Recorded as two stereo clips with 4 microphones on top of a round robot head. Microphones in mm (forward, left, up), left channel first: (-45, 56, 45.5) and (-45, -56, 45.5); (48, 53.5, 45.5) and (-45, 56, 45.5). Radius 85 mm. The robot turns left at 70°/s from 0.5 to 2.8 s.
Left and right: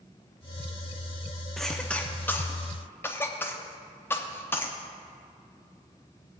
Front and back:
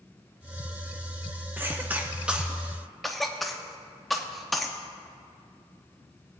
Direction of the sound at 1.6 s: 170° left.